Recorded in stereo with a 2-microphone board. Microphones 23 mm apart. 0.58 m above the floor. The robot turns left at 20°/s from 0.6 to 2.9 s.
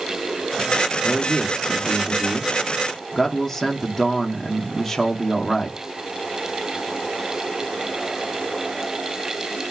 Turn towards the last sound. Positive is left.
turn(degrees=155)